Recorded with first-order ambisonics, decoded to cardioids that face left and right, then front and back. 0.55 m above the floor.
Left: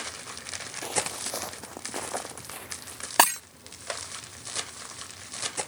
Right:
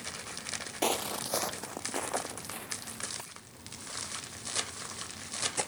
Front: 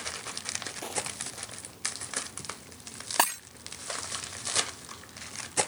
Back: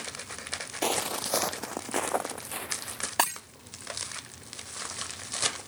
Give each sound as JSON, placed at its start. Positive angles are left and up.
{"t": 0.8, "sound": "footsteps", "azimuth_deg": -135}
{"t": 3.2, "sound": "breaking glass", "azimuth_deg": 90}